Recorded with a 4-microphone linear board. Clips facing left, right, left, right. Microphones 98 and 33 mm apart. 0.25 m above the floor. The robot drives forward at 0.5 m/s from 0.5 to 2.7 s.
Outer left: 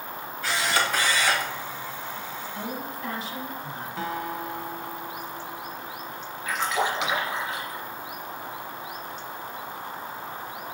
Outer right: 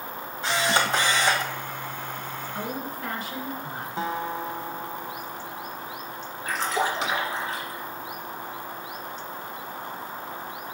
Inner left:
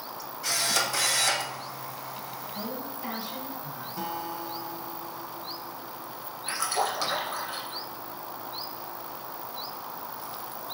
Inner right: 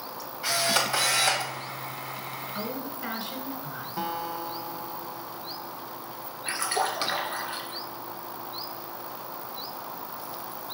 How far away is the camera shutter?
About 1.6 m.